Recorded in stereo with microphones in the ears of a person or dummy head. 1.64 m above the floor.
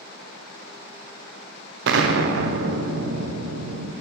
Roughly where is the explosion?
Right.